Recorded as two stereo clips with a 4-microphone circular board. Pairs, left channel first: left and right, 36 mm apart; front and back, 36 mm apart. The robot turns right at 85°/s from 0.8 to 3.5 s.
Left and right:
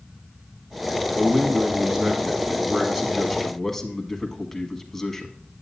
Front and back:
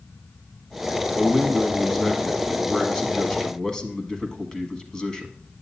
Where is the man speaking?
165° right, 1.2 m; by 5.3 s 35° left, 1.2 m.